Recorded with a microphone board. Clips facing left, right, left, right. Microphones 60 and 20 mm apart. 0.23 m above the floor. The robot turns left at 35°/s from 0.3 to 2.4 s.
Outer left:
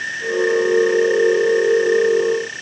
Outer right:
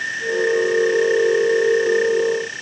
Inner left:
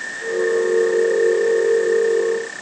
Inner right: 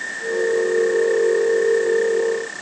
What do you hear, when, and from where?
Only background noise.